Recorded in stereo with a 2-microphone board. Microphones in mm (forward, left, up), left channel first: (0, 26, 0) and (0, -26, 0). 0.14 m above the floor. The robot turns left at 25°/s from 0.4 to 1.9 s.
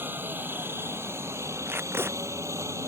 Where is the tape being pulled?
40° right (ahead or behind); by 2.2 s 45° right (ahead or behind).